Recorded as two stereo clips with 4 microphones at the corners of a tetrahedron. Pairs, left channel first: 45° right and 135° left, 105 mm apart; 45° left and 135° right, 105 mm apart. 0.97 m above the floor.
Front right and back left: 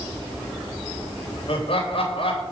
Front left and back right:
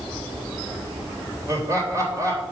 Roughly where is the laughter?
Right.